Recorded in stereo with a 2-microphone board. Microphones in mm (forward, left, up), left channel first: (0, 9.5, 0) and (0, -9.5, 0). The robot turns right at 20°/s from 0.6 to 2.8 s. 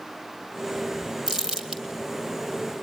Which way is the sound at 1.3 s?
35° right (ahead or behind).